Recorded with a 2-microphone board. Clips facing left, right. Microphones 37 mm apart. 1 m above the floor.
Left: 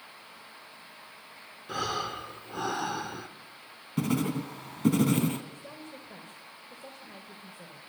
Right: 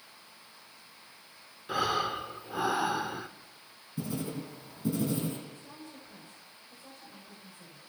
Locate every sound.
1.7 s breathing: 10° right (ahead or behind), 1.1 m
4.0 s writing: 60° left (ahead or behind), 2 m
5.5 s a woman speaking: 50° left (ahead or behind), 4 m